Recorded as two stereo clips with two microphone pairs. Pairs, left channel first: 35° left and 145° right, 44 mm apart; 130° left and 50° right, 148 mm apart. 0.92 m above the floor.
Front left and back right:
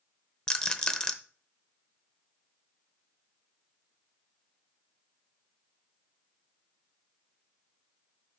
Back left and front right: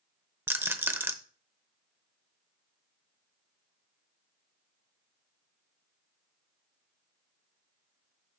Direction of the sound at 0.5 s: Straight ahead.